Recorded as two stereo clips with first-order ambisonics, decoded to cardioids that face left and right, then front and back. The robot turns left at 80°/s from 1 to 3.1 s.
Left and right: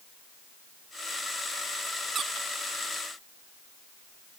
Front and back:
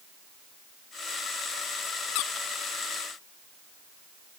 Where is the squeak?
20° right; by 2.5 s 45° right.